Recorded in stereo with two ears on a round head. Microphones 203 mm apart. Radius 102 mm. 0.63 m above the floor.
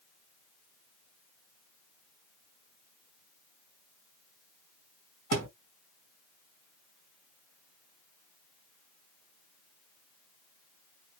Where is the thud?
75° right (ahead or behind), 1.9 m.